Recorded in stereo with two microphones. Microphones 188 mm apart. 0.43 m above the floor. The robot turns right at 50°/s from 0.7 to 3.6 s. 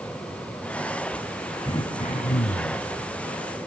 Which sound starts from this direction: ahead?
Throat clearing, at 1.6 s.